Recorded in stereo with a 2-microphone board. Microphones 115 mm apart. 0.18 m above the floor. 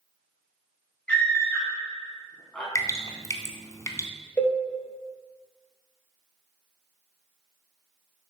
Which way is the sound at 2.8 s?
30° left (ahead or behind).